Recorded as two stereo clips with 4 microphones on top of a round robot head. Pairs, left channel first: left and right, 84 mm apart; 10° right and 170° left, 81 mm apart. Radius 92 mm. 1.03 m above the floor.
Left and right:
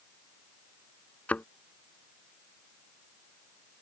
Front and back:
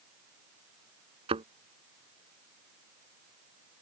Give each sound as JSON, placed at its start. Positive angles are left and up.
{"t": 1.3, "sound": "a thud", "azimuth_deg": 165}